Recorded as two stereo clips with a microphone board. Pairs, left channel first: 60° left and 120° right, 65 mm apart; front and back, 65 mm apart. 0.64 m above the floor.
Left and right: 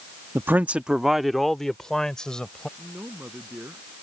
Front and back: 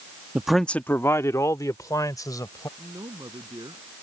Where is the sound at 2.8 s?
Straight behind.